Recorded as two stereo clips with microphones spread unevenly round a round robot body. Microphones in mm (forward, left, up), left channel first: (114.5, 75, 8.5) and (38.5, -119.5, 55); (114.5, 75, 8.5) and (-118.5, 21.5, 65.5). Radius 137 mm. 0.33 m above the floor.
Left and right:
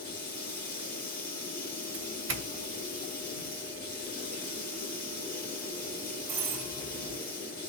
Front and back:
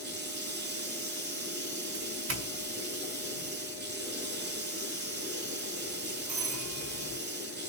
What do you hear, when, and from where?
0.0 s running water: 145° left, 2.5 m
1.9 s a doorbell: 135° right, 2.5 m